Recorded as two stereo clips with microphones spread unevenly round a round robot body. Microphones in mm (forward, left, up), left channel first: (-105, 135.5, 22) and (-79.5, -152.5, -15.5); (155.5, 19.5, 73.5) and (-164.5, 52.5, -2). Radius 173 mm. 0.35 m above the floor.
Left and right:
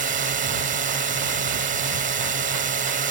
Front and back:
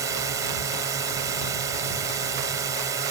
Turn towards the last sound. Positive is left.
turn(degrees=-125)